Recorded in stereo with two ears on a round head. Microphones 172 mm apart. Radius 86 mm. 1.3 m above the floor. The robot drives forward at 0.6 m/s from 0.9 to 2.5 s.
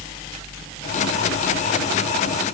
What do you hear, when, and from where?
Only background noise.